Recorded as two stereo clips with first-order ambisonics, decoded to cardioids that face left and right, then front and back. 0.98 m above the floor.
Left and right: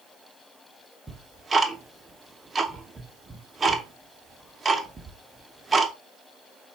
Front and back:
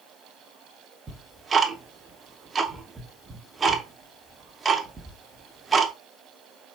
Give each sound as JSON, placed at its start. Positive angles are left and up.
{"t": 1.1, "sound": "ticking", "azimuth_deg": -135, "distance_m": 0.6}